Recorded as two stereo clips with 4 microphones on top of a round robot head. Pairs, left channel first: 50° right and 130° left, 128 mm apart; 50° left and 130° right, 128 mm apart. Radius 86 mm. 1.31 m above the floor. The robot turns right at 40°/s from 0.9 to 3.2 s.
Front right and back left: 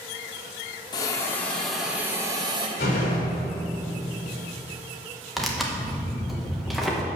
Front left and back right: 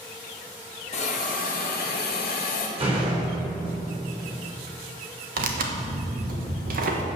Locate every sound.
0.9 s a hiss: 10° left, 1.4 m; by 2.7 s 80° left, 1.4 m
2.8 s a door slam: 90° right, 3.5 m; by 3.6 s 70° right, 3.5 m
5.4 s tearing paper: 140° right, 1.4 m